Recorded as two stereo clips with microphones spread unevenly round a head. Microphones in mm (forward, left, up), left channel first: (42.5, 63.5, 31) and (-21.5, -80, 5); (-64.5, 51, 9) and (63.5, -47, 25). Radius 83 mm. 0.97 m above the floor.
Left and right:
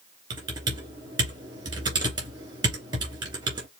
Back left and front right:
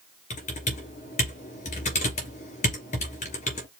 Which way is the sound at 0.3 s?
175° right.